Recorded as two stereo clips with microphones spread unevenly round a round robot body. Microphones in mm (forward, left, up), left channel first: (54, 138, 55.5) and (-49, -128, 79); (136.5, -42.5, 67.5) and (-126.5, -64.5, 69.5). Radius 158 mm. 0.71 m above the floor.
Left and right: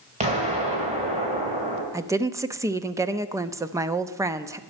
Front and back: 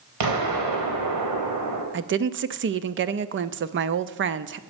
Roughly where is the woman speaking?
Behind.